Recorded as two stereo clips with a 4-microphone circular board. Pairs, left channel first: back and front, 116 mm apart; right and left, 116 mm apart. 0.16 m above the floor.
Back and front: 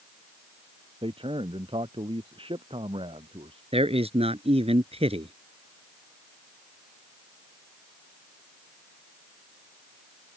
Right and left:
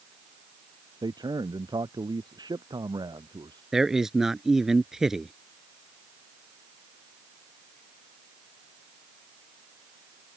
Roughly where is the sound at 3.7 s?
Ahead.